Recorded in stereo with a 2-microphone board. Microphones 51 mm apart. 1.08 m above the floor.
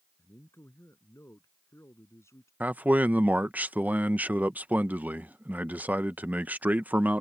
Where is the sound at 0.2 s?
75° left (ahead or behind).